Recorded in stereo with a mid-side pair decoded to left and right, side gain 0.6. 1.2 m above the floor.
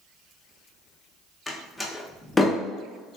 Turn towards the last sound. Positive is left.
turn(degrees=10)